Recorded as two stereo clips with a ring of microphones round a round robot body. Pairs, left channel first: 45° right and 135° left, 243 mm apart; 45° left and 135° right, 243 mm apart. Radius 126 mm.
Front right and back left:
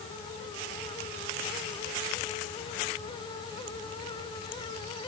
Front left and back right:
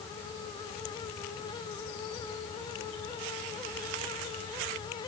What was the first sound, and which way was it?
Only background noise.